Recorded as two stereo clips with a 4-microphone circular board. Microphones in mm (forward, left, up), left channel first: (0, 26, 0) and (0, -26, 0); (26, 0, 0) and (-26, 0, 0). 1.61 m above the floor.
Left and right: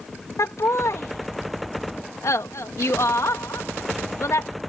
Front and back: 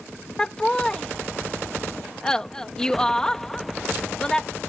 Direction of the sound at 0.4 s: 75° left.